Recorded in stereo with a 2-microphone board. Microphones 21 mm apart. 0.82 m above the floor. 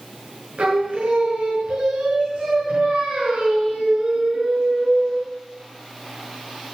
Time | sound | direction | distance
0.6 | singing | 65° right (ahead or behind) | 5 m